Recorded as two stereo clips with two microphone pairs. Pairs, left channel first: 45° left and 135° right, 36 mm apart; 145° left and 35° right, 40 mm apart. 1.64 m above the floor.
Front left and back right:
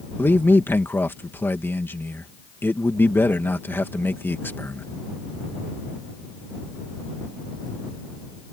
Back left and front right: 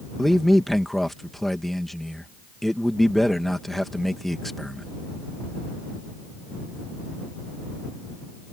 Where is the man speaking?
55° left.